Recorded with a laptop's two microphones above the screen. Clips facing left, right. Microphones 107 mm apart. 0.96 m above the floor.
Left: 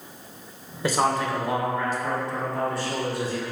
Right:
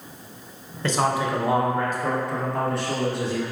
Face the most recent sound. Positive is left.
turn(degrees=-70)  # may be behind; listen again after turning